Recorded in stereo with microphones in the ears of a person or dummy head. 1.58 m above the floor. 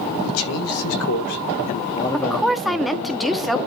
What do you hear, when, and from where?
0.2 s a man speaking: 80° left, 2.5 m; by 3.1 s 40° right (ahead or behind), 1.5 m
2.1 s a woman speaking: centre (ahead or behind), 0.9 m